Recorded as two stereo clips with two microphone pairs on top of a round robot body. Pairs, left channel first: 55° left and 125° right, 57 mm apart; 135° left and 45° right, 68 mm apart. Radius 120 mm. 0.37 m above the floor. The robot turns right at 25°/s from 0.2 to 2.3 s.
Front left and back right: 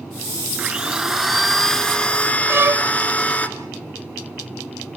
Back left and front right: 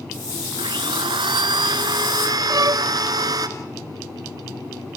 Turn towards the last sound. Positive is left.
turn(degrees=-75)